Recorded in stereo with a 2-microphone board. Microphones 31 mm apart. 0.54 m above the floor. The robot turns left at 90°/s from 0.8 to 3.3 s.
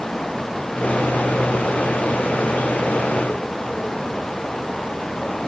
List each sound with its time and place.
Only background noise.